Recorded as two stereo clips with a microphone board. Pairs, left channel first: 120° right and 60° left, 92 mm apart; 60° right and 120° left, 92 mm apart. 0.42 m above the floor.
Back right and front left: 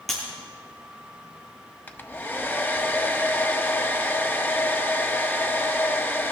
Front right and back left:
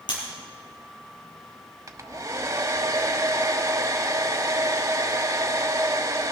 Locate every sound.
0.1 s breaking glass: 30° right, 5.5 m
1.9 s a hair dryer: 175° left, 0.9 m